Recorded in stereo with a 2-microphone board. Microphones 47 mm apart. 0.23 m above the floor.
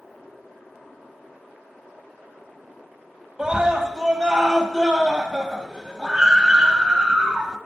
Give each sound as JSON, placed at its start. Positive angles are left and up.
{"t": 3.4, "sound": "a scream", "side_deg": -20, "distance_m": 1.0}